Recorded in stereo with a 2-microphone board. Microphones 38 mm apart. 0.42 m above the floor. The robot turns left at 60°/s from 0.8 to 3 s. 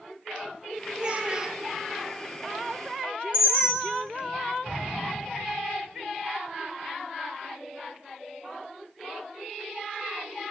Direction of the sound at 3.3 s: 55° right (ahead or behind).